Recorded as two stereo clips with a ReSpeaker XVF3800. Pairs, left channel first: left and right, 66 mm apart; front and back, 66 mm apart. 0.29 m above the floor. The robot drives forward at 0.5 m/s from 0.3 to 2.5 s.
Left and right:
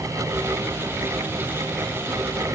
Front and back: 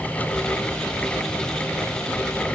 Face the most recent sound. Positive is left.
No sound to turn to.